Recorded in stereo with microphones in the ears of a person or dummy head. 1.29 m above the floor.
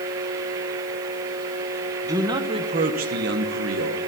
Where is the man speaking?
20° right (ahead or behind), 1.3 m; by 4.0 s 80° right, 1.2 m.